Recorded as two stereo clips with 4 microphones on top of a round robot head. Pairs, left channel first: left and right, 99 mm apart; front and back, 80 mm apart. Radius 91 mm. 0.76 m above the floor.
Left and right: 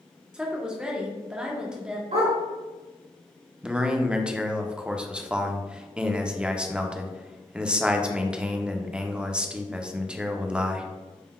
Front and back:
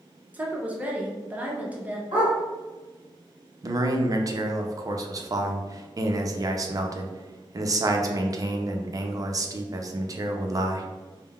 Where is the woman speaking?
160° right, 0.9 m.